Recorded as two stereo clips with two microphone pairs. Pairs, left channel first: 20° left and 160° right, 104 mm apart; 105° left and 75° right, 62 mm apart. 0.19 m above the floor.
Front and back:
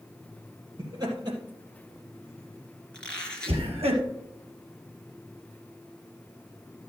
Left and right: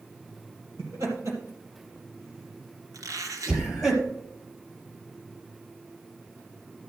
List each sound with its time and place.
0.8 s laughter: 110° right, 4.5 m; by 3.9 s 155° right, 3.5 m
2.9 s a squeak: 60° right, 2.5 m